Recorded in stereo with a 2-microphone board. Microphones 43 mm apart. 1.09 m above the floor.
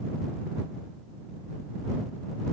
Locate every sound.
Only background noise.